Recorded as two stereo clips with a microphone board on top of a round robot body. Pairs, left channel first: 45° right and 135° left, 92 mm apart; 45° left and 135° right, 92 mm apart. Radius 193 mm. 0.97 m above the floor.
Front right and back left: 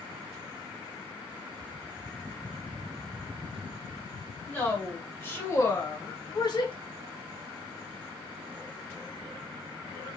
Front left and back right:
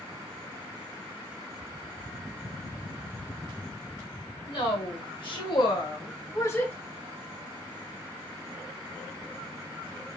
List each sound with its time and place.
4.5 s a woman speaking: 30° left, 2 m; by 6.7 s 25° right, 1.1 m